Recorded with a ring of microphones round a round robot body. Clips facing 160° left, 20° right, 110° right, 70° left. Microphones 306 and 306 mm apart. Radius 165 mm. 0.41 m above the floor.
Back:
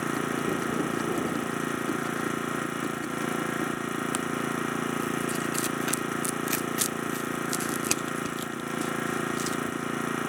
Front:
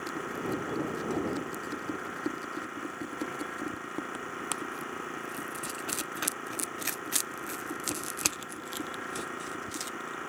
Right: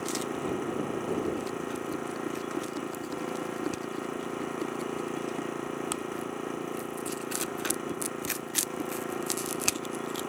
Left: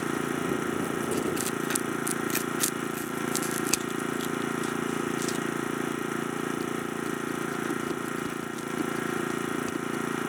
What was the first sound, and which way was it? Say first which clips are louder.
An engine running: back 7 dB, left 3 dB; 125° left.